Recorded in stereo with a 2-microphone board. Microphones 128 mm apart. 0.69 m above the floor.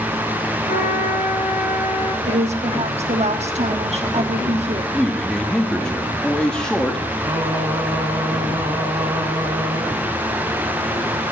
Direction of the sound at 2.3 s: 50° right (ahead or behind).